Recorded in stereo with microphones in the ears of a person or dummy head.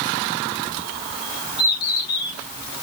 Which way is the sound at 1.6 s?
50° left (ahead or behind).